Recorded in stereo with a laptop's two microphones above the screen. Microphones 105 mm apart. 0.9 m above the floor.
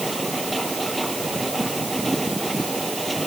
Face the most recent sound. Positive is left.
turn(degrees=0)  # may be behind; listen again after turning